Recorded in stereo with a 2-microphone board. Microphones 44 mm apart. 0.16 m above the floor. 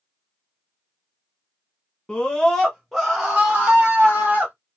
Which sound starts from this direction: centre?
A scream, at 2.1 s.